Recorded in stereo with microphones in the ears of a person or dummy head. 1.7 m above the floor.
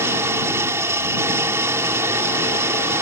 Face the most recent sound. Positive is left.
turn(degrees=-15)  # may be behind; listen again after turning